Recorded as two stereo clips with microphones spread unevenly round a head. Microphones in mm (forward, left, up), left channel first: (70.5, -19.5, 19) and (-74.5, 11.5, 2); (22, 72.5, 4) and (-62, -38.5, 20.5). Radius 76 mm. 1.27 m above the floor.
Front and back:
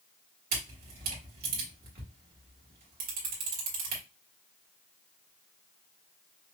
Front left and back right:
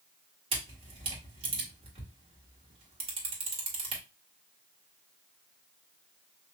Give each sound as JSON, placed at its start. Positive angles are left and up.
{"t": 0.5, "sound": "a camera shutter", "azimuth_deg": 180, "distance_m": 1.7}